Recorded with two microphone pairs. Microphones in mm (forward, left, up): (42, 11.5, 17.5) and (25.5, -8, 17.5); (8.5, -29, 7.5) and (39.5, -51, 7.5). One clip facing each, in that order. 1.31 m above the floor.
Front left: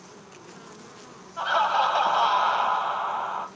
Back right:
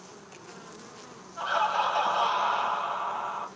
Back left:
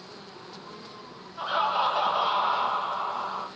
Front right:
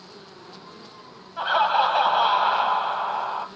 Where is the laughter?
5° right, 0.9 m.